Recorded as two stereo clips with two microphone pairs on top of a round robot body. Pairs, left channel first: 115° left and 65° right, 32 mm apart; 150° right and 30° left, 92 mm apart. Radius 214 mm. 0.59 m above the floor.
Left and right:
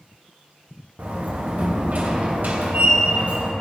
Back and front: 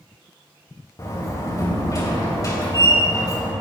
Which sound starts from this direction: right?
A door slam, at 1.0 s.